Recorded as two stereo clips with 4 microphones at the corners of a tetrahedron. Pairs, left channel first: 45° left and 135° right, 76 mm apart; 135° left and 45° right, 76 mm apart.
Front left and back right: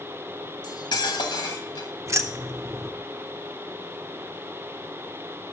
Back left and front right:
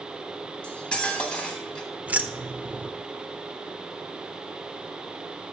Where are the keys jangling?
105° right, 0.7 m.